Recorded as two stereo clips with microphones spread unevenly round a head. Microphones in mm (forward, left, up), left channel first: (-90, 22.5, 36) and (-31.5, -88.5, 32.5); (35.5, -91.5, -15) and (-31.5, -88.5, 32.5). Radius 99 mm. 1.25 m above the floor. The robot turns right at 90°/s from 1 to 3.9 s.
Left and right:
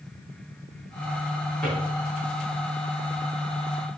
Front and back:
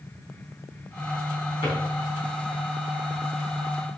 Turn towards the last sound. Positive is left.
turn(degrees=-120)